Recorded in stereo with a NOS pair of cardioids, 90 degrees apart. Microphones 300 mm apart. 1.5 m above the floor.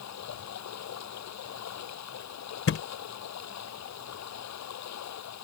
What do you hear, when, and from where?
0.0 s running water: 65° left
2.7 s a thud: 50° left